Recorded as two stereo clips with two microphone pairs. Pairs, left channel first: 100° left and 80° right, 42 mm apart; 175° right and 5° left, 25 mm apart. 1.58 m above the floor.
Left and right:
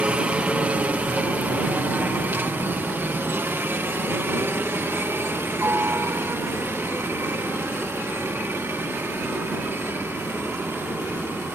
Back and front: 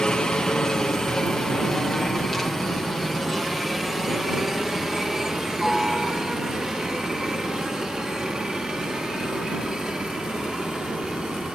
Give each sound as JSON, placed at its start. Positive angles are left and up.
{"t": 0.0, "sound": "a helicopter", "azimuth_deg": -125}